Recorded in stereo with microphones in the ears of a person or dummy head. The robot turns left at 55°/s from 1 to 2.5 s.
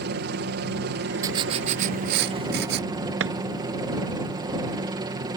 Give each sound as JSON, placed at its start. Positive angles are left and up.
{"t": 0.0, "sound": "a helicopter", "azimuth_deg": -75}
{"t": 1.2, "sound": "writing", "azimuth_deg": -20}
{"t": 3.2, "sound": "a drawer", "side_deg": -80}